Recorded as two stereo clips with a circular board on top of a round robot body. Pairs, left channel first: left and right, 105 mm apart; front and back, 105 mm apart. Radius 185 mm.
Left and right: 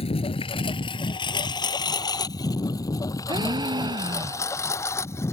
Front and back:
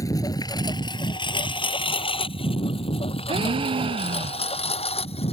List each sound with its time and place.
0.0 s a lawn mower: 60° left; by 5.3 s 25° left
3.3 s a gasp: 140° right